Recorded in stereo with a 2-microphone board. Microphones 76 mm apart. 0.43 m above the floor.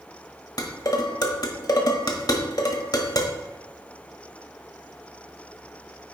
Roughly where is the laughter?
I don't hear laughter.